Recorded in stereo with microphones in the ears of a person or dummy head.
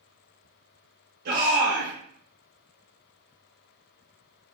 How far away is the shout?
About 1.1 m.